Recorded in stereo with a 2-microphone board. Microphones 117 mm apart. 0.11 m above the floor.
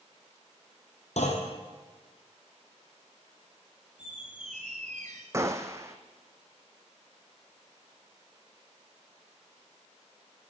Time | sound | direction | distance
1.2 | a clunk | 65° left (ahead or behind) | 2.5 m
4.0 | a squeak | 85° right | 1.6 m
5.3 | a gunshot | 25° right (ahead or behind) | 0.9 m